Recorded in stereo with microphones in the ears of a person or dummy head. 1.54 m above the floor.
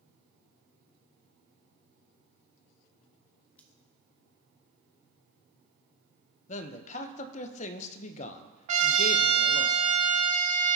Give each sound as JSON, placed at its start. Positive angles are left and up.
{"t": 3.6, "sound": "scissors", "side_deg": 5, "distance_m": 0.9}
{"t": 6.5, "sound": "a man speaking", "side_deg": 40, "distance_m": 0.8}
{"t": 8.7, "sound": "a trumpet", "side_deg": -40, "distance_m": 0.8}